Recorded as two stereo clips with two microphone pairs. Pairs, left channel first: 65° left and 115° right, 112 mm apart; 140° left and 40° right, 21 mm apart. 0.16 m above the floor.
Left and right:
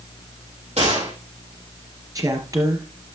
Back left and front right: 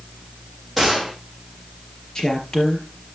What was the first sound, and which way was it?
A gunshot, 125° right.